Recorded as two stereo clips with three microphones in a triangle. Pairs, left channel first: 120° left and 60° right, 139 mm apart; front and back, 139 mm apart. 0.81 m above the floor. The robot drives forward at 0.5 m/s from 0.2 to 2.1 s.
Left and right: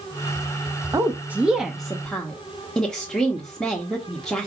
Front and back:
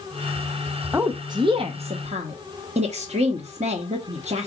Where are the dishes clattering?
No dishes clattering in this recording.